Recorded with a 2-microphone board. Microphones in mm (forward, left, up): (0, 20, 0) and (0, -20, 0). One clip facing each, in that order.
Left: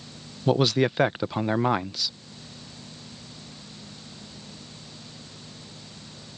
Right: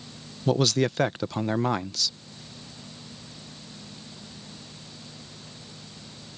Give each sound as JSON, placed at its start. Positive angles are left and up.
{"t": 0.5, "sound": "a man speaking", "side_deg": 15}